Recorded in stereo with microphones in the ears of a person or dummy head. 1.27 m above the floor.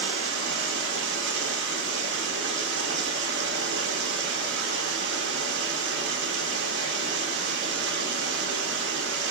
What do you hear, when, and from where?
0.0 s running water: 75° right (ahead or behind), 0.8 m